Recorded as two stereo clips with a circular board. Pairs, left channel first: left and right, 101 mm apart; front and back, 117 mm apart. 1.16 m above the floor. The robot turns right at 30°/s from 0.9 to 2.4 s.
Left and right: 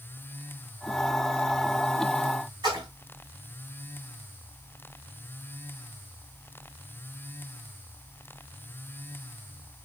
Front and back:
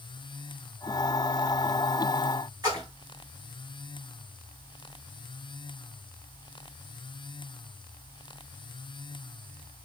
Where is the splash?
130° right, 2 m.